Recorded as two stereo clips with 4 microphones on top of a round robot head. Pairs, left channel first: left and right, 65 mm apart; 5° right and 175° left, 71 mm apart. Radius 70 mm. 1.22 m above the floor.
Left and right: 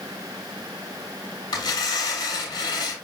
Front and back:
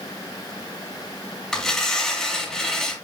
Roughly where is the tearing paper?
Left.